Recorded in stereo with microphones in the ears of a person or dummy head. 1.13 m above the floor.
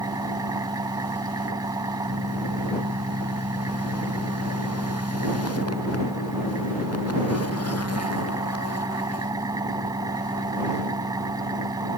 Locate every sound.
0.0 s an engine running: 20° right (ahead or behind)